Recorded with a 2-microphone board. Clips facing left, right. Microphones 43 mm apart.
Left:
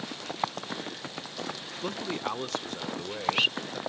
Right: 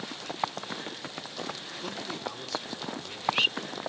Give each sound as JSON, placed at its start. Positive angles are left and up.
{"t": 1.8, "sound": "a man speaking", "side_deg": 20, "distance_m": 0.8}